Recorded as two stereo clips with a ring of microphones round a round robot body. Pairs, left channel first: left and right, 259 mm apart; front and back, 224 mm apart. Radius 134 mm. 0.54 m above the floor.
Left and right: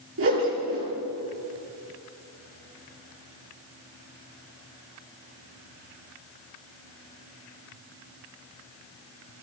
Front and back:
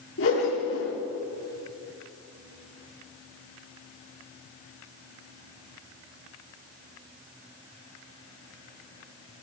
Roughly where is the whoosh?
Ahead right.